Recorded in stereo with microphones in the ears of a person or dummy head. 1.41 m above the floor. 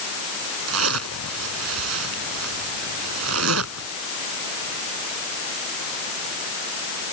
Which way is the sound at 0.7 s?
90° right.